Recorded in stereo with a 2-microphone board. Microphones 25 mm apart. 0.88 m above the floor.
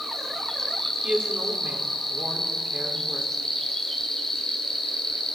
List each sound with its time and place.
0.0 s an insect: 15° left (ahead or behind), 3 m
1.0 s a woman speaking: 70° right (ahead or behind), 2.5 m